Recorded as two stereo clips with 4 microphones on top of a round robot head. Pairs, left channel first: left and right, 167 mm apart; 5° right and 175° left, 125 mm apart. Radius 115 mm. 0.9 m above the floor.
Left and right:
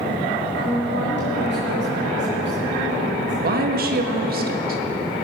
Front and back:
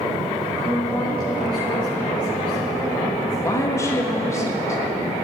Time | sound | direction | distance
0.5 | a woman speaking | 90° right | 5.5 m
3.4 | a woman speaking | 75° right | 1.4 m